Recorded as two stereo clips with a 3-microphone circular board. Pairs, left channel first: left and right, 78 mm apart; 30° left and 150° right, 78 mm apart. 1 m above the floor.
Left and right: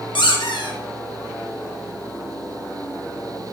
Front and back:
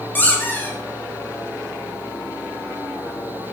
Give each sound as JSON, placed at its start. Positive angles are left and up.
{"t": 0.1, "sound": "a squeak", "azimuth_deg": 95, "distance_m": 2.5}